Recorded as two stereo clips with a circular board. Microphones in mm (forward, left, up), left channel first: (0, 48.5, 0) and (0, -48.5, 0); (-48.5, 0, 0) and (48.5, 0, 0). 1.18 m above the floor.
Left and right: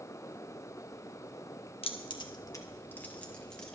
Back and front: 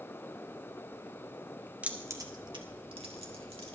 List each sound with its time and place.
1.8 s keys jangling: 75° left, 1.4 m; by 3.8 s 5° left, 3 m